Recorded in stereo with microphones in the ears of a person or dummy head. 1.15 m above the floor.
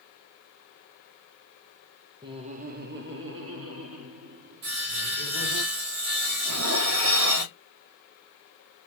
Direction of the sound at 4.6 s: 65° right (ahead or behind).